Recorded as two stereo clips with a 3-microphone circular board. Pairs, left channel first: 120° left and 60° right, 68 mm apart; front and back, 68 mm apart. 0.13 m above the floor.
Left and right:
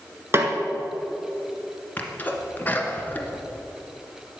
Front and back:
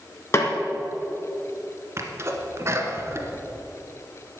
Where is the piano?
No piano in this recording.